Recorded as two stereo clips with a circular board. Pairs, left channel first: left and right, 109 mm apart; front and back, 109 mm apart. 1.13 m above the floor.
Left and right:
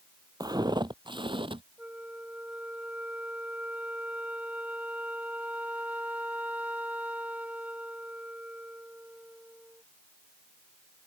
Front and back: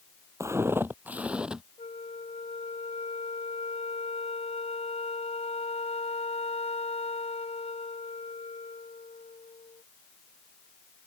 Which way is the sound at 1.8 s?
15° right.